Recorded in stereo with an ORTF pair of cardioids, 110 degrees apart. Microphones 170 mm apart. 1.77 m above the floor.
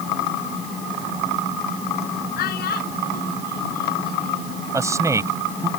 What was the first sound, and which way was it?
A child speaking, 65° left.